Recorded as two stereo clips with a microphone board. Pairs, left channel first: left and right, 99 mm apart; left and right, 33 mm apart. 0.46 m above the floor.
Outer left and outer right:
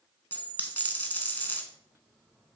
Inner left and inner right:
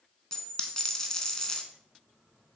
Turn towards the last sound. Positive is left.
turn(degrees=20)  # may be behind; listen again after turning